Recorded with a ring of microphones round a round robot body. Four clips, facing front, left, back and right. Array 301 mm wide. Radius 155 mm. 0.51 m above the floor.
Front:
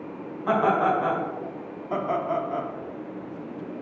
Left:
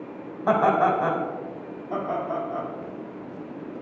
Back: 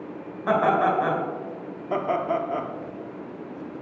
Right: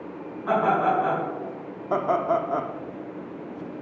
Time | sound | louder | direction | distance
0.5 | laughter | left 2 dB, back 1 dB | 110° left | 3 m
1.9 | laughter | right 5 dB, back 1 dB | 115° right | 1.2 m